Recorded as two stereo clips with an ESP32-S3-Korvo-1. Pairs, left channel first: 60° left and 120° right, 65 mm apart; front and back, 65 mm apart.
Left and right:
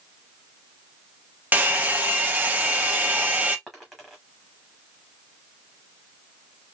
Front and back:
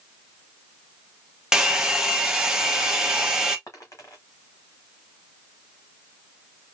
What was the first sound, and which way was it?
A hair dryer, 110° right.